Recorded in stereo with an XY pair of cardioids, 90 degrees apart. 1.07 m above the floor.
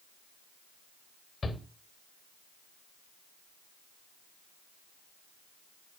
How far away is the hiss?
No hiss in this recording.